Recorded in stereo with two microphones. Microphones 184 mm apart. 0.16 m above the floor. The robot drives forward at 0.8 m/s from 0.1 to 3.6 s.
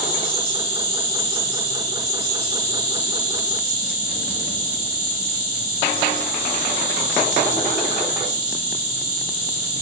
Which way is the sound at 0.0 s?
25° left (ahead or behind).